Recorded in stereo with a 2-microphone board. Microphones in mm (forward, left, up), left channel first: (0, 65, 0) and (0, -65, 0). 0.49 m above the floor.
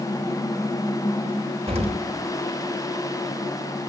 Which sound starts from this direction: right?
An explosion, at 1.7 s.